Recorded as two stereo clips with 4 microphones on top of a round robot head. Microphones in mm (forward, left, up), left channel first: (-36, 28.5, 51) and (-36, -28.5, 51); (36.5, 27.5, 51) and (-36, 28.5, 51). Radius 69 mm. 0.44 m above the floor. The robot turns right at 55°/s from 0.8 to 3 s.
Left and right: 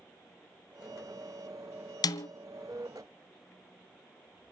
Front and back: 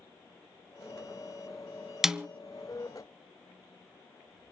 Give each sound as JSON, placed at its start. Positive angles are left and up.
{"t": 2.0, "sound": "a snare drum", "azimuth_deg": 95, "distance_m": 0.8}